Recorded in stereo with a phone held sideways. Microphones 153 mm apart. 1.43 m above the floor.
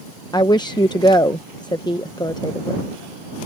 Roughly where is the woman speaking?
Left.